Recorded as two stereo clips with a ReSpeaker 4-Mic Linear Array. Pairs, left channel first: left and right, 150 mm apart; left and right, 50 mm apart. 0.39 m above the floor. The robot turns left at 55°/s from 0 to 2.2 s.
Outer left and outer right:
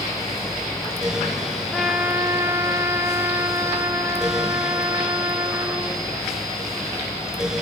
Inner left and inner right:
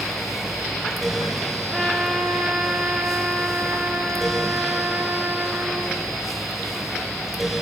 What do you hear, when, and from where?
1.7 s a trumpet: 5° left (ahead or behind), 1.2 m; by 6.1 s 15° right (ahead or behind), 1.2 m